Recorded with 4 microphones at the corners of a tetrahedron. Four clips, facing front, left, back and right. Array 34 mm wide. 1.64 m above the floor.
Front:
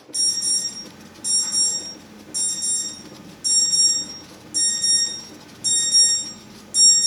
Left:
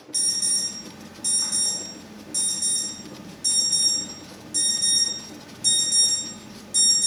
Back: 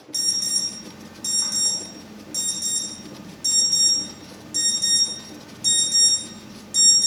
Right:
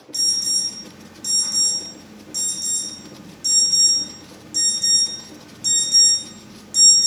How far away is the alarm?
About 1.7 m.